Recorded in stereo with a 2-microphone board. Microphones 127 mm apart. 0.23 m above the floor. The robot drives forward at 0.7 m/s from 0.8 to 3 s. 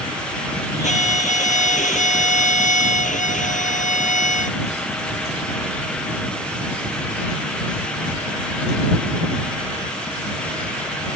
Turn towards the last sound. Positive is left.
turn(degrees=75)  # may be behind; listen again after turning